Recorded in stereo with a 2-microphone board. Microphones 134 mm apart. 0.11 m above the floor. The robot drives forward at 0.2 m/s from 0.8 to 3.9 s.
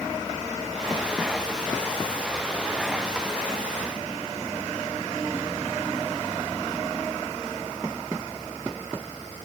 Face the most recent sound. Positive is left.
No sound to turn to.